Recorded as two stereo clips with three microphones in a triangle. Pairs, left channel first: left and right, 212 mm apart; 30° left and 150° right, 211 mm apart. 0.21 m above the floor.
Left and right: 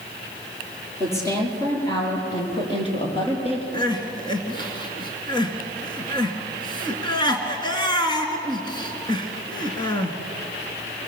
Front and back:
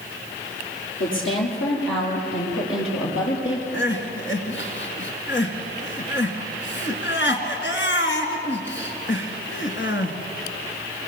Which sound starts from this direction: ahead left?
Crying, at 3.7 s.